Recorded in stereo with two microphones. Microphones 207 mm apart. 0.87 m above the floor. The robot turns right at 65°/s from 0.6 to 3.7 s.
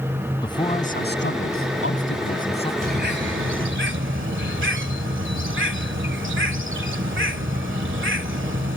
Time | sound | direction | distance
0.4 | a man speaking | 20° left | ?
2.8 | a bird | 135° right | ?